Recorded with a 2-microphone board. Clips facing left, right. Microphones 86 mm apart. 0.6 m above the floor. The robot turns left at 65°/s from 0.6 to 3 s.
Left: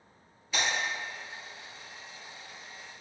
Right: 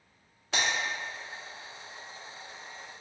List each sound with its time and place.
0.5 s breaking glass: 80° right, 2.0 m; by 0.7 s 70° right (ahead or behind), 2.0 m